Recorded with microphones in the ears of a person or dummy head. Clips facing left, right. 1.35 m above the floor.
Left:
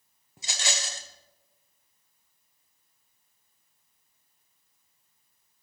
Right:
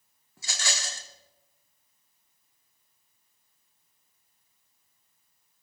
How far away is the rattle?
About 0.8 m.